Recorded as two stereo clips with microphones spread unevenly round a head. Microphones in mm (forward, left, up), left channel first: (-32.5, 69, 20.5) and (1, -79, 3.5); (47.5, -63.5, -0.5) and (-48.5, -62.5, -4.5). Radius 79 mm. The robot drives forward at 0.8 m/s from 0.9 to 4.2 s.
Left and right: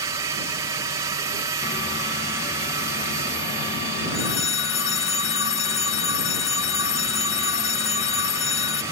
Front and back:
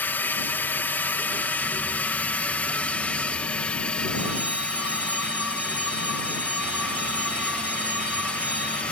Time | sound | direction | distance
0.0 | a drone | 50° right | ?
4.1 | a phone ringing | 95° left | ?